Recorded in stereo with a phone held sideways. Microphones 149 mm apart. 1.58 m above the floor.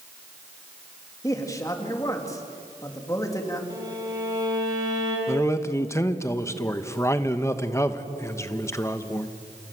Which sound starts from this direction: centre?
A man speaking, at 5.3 s.